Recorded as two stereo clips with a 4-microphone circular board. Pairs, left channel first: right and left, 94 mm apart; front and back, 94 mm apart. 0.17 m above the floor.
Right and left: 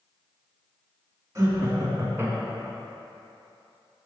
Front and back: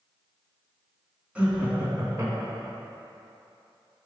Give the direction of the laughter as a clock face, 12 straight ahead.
8 o'clock.